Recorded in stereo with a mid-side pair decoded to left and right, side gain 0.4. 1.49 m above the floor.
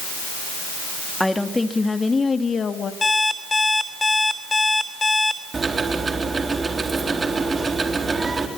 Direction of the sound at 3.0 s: 30° left.